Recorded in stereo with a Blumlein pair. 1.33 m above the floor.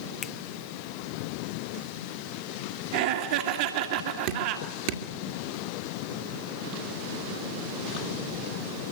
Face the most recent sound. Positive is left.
turn(degrees=-45)